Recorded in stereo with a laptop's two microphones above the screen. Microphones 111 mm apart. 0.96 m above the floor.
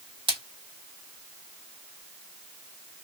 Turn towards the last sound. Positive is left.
turn(degrees=-45)  # may be behind; listen again after turning